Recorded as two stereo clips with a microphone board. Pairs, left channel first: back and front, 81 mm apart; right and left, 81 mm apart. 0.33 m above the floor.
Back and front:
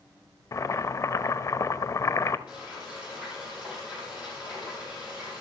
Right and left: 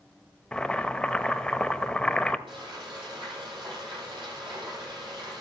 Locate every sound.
0.5 s boiling: 165° right, 0.6 m
2.5 s frying: 75° left, 7.5 m